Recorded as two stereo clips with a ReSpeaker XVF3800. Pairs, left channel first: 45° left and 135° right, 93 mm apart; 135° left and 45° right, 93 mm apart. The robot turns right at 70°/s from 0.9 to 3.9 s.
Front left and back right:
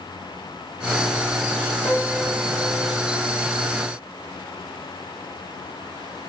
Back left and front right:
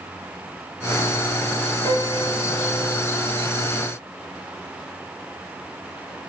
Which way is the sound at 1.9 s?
85° left.